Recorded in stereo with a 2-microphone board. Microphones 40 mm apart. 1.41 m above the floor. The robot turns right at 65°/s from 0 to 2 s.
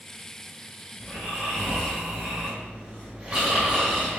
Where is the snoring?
145° left, 1.8 m; by 4.2 s 150° right, 1.8 m.